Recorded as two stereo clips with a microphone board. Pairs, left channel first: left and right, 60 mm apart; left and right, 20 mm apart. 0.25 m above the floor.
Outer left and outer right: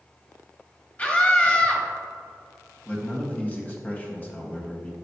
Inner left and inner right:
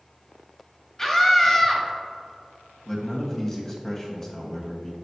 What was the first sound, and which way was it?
A scream, 25° left (ahead or behind).